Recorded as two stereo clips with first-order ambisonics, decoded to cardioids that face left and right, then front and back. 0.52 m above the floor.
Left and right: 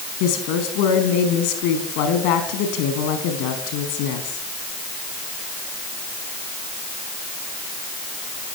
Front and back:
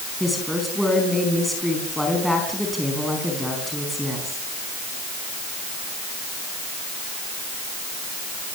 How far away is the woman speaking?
About 4.5 m.